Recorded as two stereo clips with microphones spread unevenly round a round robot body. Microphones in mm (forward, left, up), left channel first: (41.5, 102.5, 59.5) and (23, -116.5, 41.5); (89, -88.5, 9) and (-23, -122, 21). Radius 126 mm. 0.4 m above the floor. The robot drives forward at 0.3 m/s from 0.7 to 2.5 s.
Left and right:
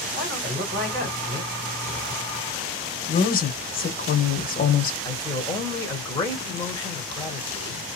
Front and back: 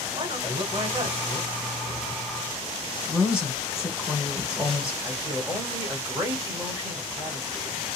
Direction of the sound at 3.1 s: 110° left.